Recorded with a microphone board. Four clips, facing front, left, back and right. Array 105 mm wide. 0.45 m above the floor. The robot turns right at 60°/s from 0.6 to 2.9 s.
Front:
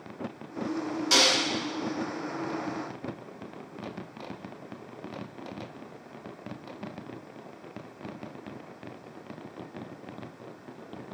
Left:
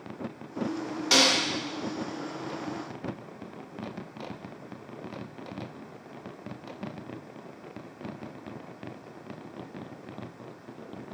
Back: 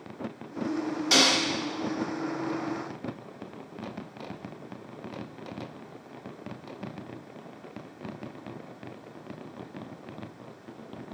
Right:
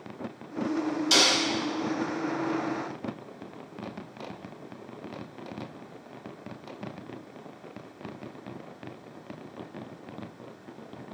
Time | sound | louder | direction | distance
1.1 | a snare drum | left 3 dB, back 1 dB | 100° left | 1.2 m